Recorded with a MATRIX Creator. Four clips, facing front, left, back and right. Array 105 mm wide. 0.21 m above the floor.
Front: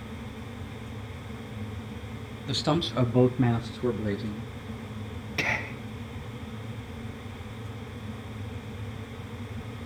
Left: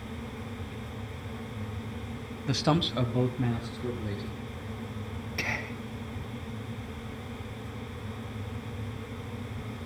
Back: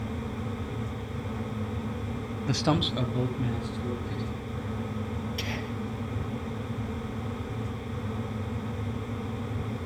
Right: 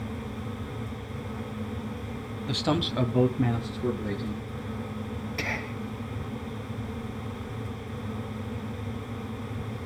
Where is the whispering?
Straight ahead, 1.9 m.